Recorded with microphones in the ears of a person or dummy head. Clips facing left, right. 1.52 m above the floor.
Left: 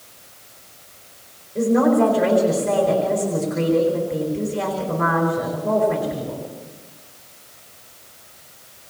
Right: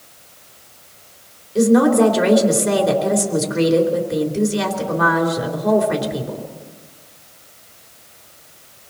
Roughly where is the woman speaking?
Right.